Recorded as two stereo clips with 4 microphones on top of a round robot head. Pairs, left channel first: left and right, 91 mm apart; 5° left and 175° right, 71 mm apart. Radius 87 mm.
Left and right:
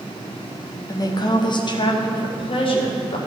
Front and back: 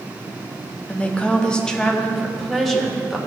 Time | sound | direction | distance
0.9 | a woman speaking | 70° left | 1.3 m